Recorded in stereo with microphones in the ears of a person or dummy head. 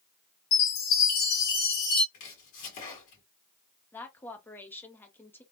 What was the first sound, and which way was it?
A chime, 50° left (ahead or behind).